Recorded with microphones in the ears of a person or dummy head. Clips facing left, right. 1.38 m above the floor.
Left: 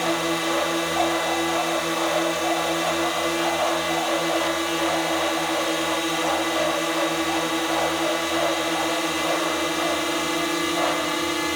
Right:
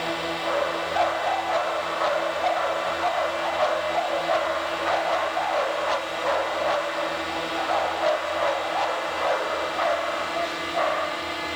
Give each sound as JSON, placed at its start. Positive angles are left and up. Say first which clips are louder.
{"t": 0.0, "sound": "a drone", "louder": "left 4 dB", "side_deg": 50}